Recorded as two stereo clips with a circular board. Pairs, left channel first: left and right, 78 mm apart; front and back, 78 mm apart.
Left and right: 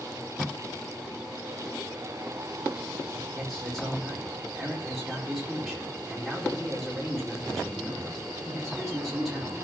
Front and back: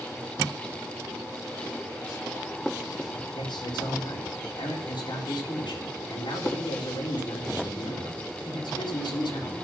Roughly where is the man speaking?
Ahead.